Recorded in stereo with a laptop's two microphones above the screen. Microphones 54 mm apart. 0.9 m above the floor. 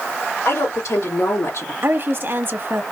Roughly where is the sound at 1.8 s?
Right.